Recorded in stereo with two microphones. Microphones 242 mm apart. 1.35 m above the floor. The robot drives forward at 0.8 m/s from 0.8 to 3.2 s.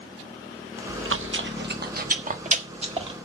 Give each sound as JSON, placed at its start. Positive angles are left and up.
{"t": 0.9, "sound": "chewing", "side_deg": -60, "distance_m": 1.0}